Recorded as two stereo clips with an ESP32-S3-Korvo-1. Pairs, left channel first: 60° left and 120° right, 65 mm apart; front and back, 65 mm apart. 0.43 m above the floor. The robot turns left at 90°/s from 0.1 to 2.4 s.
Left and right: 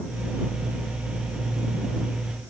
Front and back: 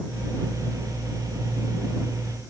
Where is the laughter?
No laughter in this recording.